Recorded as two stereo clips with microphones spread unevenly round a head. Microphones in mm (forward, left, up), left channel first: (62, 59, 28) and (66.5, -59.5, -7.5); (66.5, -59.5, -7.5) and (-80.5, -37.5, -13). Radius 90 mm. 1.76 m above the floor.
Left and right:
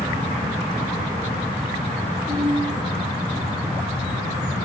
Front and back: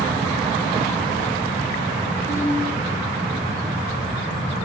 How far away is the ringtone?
About 8.5 m.